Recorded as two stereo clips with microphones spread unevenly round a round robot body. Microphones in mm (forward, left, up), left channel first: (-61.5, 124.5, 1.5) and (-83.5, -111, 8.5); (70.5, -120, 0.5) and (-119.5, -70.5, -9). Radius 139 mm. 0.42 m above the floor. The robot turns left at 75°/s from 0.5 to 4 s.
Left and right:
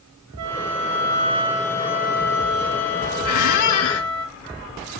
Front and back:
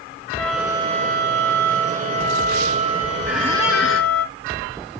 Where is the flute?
105° right, 1.1 m; by 4.2 s 5° right, 1.1 m.